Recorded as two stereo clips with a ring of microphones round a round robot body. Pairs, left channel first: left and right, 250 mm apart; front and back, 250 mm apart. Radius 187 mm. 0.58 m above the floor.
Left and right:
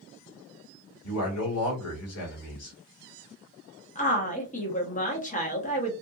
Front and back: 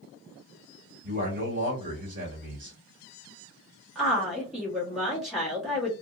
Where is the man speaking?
115° left, 1.6 m.